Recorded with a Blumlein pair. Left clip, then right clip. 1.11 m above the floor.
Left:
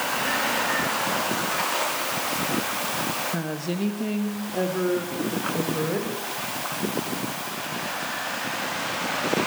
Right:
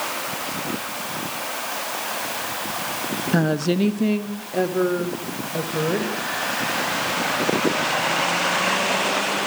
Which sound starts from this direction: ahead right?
A woman speaking, at 3.3 s.